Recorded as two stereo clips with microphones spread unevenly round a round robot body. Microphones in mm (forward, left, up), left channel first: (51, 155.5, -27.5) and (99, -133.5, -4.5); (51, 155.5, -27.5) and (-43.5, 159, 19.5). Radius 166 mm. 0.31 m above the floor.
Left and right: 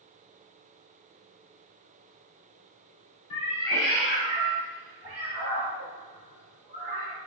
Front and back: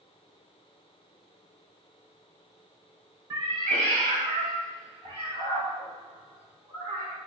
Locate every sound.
3.3 s a cat meowing: 110° left, 0.7 m; by 7.2 s 125° right, 4.5 m